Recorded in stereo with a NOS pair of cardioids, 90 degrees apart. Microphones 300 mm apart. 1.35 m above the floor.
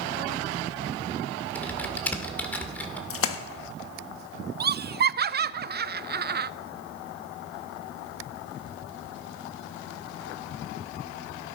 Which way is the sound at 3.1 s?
50° left.